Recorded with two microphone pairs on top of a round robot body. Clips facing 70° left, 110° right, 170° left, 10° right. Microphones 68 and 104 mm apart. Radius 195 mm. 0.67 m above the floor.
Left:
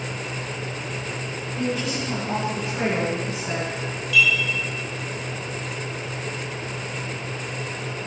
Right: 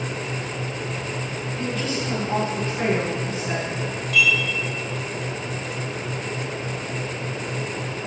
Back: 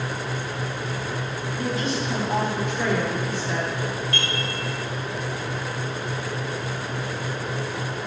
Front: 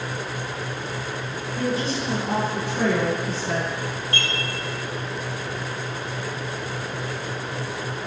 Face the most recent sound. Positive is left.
turn(degrees=-65)